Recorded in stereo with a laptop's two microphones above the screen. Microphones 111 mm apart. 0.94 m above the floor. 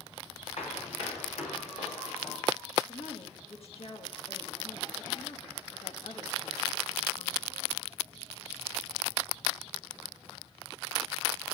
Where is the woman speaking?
60° left (ahead or behind), 1.4 m.